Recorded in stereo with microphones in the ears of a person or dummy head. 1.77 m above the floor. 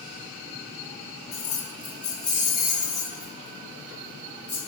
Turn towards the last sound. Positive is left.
turn(degrees=-15)  # may be behind; listen again after turning